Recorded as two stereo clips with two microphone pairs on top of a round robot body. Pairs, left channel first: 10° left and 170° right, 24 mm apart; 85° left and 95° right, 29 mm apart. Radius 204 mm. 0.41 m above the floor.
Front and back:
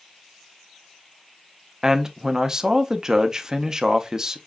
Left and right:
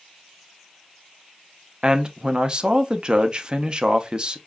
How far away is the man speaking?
About 1.0 m.